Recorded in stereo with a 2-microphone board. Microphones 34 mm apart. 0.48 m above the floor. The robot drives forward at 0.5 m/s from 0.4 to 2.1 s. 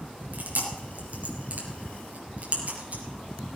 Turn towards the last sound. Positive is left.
turn(degrees=-50)  # may be behind; listen again after turning